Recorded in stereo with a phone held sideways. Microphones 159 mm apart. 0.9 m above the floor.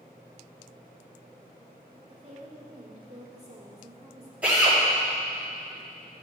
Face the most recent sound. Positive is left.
turn(degrees=-10)  # may be behind; listen again after turning